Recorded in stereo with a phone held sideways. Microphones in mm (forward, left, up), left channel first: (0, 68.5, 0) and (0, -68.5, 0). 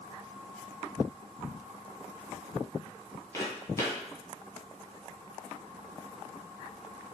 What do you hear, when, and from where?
3.3 s footsteps: 20° left (ahead or behind), 1.4 m